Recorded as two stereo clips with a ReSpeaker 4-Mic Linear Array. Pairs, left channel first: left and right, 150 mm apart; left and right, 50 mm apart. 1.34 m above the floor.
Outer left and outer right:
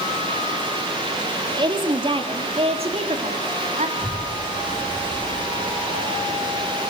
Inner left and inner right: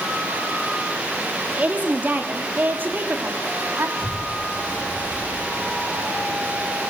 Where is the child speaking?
35° right (ahead or behind), 8.5 m.